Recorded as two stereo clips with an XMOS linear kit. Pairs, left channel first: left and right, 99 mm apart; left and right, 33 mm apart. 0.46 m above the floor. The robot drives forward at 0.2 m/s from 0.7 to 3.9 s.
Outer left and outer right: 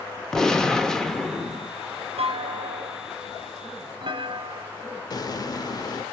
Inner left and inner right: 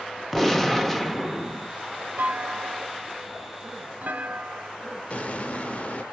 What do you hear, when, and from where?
0.3 s a gunshot: 5° left (ahead or behind), 0.6 m
2.2 s a clunk: 75° right (ahead or behind), 0.8 m; by 4.7 s 55° right (ahead or behind), 0.9 m
5.1 s an explosion: 40° left (ahead or behind), 0.5 m